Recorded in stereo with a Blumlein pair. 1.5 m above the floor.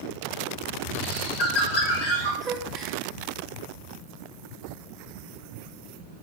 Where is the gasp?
10° right, 0.7 m.